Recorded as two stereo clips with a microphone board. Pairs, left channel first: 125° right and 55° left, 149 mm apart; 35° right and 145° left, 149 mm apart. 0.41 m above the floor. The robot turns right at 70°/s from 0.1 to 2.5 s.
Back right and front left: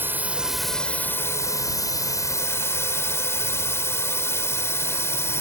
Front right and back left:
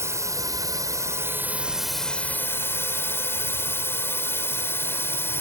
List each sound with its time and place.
0.0 s a drone: 110° left; by 5.4 s 80° right